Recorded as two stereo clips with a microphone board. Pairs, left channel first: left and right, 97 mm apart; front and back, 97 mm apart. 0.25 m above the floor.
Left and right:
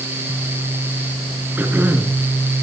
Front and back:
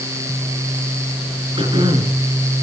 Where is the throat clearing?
160° right, 4 m.